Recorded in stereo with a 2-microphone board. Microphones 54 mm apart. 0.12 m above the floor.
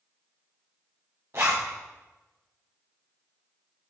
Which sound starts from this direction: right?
A zipper, at 1.3 s.